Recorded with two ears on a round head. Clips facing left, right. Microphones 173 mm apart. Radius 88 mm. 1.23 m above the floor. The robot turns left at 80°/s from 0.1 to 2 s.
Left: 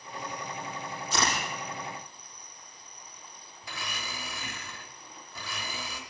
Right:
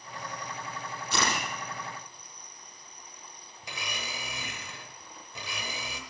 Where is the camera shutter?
50° right (ahead or behind), 6.5 m; by 1.4 s 75° right (ahead or behind), 6.5 m.